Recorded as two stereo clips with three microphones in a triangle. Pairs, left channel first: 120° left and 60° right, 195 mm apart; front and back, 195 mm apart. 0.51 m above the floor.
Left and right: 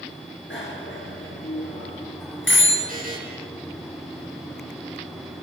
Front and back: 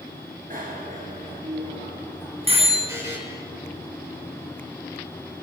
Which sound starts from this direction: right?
A buzzer, at 2.9 s.